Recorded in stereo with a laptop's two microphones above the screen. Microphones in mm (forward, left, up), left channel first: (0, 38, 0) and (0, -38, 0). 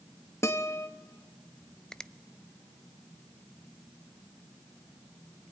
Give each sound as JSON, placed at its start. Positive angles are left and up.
{"t": 0.4, "sound": "a guitar", "side_deg": 35, "distance_m": 1.5}
{"t": 1.9, "sound": "a finger snap", "side_deg": 10, "distance_m": 0.5}